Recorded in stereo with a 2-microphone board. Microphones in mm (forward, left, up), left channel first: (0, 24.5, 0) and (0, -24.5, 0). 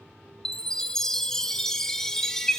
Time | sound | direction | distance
0.5 | a chime | 15° left (ahead or behind) | 0.6 m